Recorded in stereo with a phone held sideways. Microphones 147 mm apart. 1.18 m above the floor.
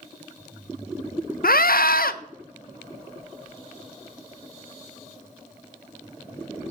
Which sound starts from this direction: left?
A scream, at 1.4 s.